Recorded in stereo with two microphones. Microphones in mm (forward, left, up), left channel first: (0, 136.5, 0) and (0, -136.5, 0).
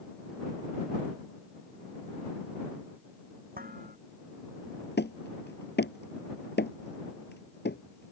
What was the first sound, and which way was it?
Dishes clattering, 35° right (ahead or behind).